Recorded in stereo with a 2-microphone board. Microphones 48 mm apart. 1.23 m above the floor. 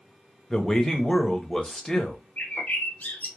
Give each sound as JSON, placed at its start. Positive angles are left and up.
{"t": 0.5, "sound": "a man speaking", "side_deg": 10, "distance_m": 0.6}
{"t": 2.4, "sound": "a bird", "side_deg": 35, "distance_m": 0.6}